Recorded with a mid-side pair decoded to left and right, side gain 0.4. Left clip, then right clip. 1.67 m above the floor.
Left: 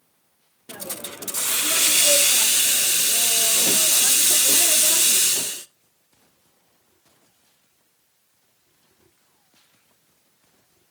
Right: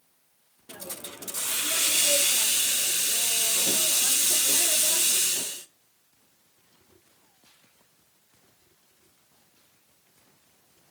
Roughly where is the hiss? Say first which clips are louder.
Left 6 dB; ahead left.